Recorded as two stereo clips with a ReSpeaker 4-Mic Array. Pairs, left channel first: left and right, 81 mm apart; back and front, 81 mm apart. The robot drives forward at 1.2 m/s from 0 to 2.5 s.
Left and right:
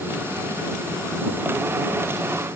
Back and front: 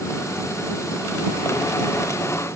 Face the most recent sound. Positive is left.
No sound to turn to.